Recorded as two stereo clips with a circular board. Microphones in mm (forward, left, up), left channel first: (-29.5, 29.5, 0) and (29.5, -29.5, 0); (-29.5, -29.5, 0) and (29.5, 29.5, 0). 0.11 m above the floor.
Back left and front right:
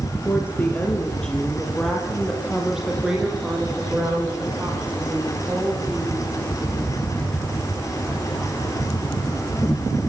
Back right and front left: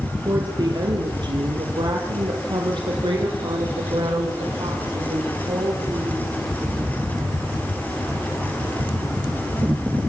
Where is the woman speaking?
80° left, 2.5 m; by 6.3 s 25° left, 7 m.